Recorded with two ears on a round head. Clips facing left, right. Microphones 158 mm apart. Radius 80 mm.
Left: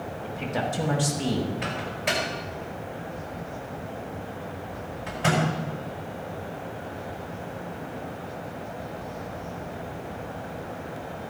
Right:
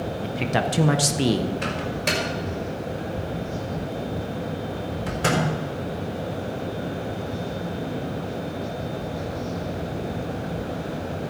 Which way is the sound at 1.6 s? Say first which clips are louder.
Right 4 dB; 55° right (ahead or behind).